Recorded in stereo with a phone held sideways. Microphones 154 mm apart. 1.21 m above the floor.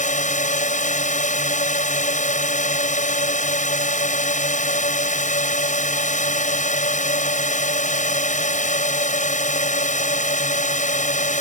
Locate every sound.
0.0 s a drone: 50° left (ahead or behind)